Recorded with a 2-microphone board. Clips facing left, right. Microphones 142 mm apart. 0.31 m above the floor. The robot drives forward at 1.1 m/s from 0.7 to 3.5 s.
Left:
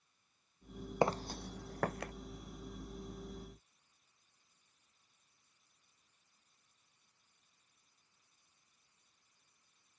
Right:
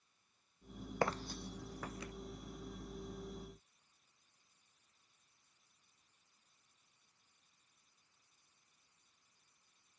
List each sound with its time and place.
1.0 s footsteps: 20° left (ahead or behind); by 2.1 s 55° left (ahead or behind)